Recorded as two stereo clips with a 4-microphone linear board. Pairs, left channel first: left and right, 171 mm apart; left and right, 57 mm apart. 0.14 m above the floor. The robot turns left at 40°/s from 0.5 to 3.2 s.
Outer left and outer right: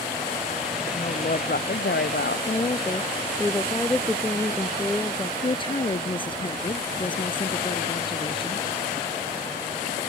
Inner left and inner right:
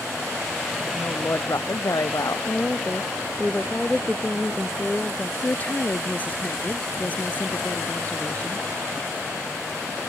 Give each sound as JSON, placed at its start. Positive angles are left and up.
{"t": 0.9, "sound": "a woman speaking", "azimuth_deg": 145}
{"t": 2.5, "sound": "a woman speaking", "side_deg": 35}
{"t": 5.4, "sound": "a woman speaking", "side_deg": 30}